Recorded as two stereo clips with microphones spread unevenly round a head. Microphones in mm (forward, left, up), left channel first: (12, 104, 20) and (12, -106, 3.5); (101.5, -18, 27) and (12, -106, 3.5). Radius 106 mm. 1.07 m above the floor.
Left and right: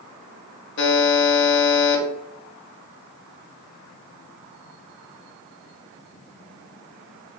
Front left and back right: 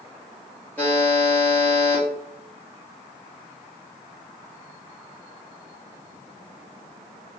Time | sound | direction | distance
0.8 | a buzzer | 120° left | 0.7 m